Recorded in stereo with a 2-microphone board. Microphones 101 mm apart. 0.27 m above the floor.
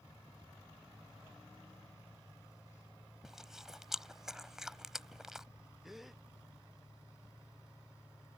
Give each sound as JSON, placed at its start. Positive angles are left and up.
{"t": 3.2, "sound": "chewing", "side_deg": -5}
{"t": 5.8, "sound": "a gasp", "side_deg": 0}